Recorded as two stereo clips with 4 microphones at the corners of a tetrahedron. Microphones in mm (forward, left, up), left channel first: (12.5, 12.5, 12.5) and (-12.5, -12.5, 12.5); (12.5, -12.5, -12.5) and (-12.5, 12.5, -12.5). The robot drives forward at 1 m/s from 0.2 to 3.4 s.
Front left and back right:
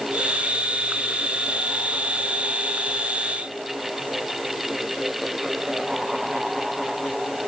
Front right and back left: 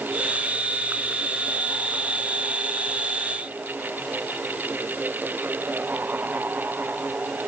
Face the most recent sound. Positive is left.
No sound to turn to.